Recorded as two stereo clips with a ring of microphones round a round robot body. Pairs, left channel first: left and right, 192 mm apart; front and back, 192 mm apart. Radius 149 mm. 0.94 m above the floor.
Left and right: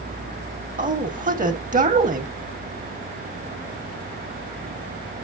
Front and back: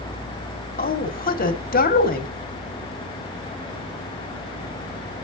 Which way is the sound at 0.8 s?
40° right.